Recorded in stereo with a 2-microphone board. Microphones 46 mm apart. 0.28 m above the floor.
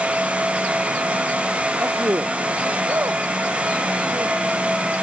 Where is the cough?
I don't hear a cough.